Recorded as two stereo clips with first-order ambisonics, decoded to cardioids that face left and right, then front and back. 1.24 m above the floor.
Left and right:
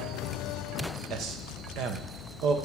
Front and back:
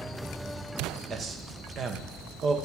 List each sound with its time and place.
1.1 s a man speaking: 125° right, 0.9 m